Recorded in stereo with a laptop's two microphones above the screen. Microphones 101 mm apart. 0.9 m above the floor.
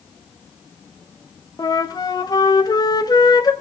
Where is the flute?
40° left (ahead or behind), 1.0 m.